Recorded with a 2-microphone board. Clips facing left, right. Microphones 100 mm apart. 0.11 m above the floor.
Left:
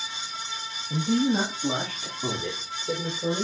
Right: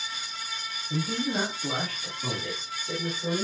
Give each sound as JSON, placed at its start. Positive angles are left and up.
{"t": 0.9, "sound": "a man speaking", "side_deg": 10, "distance_m": 3.5}